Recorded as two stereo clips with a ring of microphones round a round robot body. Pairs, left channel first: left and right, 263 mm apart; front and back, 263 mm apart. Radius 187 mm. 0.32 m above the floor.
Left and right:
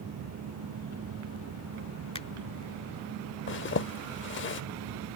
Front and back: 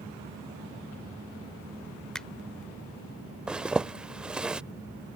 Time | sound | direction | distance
2.1 | a finger snap | 85° left | ?
3.5 | a zipper | 95° left | ?